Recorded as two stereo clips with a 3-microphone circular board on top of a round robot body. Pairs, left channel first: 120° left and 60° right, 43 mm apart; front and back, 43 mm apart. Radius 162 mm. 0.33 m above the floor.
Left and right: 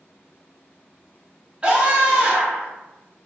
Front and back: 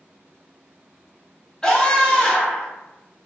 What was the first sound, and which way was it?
A scream, 50° right.